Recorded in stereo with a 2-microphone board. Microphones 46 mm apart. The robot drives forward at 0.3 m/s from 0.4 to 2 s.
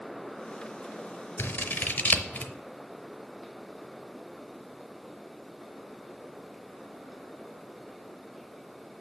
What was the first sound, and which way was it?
Scissors, 50° left (ahead or behind).